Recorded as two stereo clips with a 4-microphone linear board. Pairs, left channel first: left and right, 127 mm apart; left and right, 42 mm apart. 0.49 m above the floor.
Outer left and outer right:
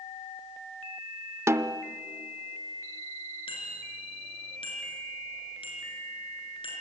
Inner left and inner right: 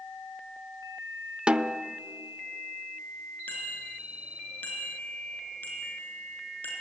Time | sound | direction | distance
1.5 | a snare drum | 20° right (ahead or behind) | 0.5 m
3.5 | a bicycle bell | 45° left (ahead or behind) | 5.5 m